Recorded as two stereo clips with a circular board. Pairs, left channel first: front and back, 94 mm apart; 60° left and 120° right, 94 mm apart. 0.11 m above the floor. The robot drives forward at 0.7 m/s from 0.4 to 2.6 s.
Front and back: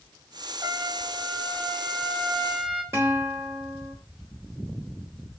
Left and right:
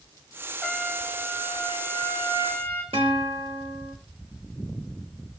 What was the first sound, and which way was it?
A trumpet, 150° left.